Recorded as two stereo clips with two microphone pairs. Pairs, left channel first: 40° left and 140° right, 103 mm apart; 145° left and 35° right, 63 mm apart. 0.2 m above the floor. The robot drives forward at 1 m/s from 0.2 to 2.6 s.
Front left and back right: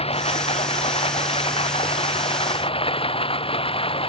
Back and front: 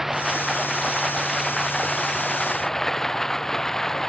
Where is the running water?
55° left; by 4.1 s 65° left.